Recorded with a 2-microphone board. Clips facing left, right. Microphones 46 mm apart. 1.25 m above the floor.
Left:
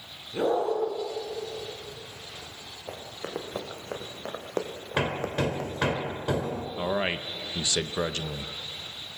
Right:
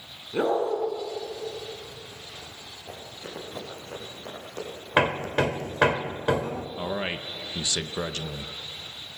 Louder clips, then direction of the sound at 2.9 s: Left 4 dB; 60° left (ahead or behind).